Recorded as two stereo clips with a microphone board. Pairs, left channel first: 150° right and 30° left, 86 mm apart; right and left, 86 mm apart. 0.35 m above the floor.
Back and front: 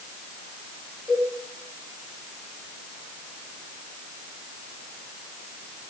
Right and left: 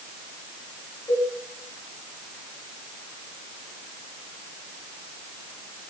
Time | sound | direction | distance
1.1 | a cowbell | 60° right | 4.5 m